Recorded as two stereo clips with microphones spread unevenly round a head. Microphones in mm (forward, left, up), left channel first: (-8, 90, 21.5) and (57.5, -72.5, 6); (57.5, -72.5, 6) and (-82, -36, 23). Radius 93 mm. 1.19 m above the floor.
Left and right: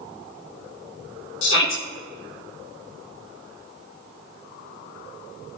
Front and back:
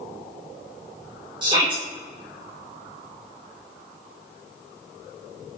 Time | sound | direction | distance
1.4 | a shout | 95° left | 2.0 m